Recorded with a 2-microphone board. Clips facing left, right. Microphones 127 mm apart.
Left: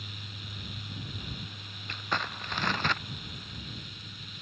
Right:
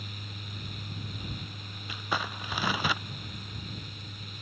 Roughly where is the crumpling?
Centre.